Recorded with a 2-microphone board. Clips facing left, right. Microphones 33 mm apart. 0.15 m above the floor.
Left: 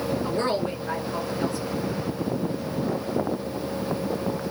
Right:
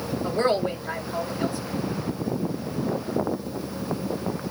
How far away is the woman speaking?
About 2 m.